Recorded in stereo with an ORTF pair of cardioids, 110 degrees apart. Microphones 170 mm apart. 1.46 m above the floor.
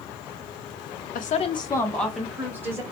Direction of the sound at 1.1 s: 55° left.